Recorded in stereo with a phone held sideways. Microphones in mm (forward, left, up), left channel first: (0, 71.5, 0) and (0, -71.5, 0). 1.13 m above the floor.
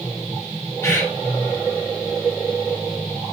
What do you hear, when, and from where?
0.8 s a bird: 20° left (ahead or behind), 2.5 m